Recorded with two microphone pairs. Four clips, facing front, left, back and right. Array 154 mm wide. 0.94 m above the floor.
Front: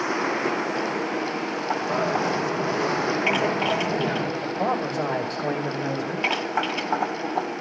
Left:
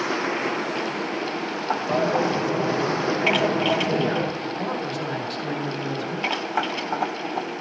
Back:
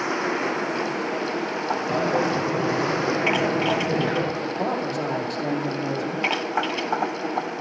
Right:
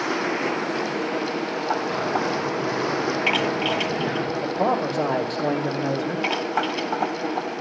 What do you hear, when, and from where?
1.9 s a dropped coin: 125° left, 3 m
4.4 s a man speaking: 90° right, 2.5 m